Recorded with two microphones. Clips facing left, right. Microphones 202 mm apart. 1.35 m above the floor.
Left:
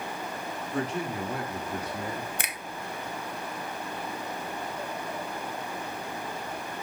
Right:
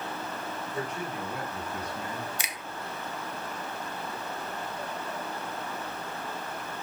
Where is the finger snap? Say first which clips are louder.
Left 2 dB; 55° left (ahead or behind), 1.1 m.